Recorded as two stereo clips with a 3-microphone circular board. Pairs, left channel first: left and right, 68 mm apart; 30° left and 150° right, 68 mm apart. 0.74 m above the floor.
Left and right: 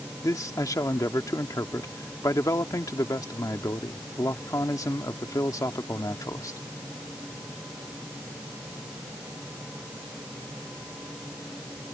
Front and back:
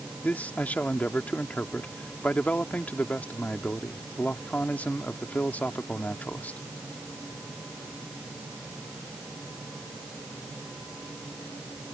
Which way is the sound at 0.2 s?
95° left.